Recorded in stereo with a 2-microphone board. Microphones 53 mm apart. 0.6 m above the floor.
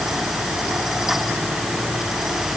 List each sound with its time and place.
Only background noise.